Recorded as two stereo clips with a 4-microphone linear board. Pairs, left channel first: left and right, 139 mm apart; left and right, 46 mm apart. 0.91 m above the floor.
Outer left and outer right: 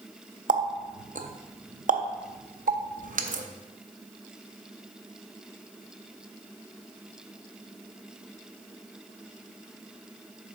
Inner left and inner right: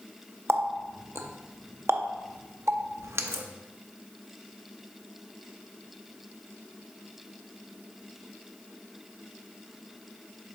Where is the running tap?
70° right (ahead or behind), 0.5 m.